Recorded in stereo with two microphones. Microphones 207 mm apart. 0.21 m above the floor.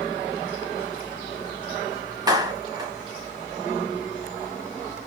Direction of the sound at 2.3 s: 20° right (ahead or behind).